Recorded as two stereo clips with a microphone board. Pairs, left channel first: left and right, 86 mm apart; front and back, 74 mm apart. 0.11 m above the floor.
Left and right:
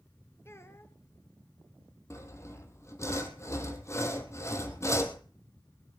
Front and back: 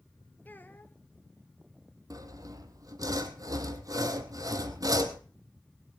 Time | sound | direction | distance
0.5 | a child speaking | 50° left | 0.9 m
2.1 | sawing | 145° left | 1.3 m